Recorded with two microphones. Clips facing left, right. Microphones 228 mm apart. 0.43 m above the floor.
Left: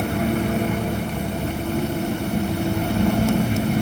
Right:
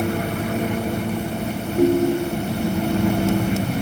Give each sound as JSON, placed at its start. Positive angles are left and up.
{"t": 1.8, "sound": "a ringtone", "side_deg": -60}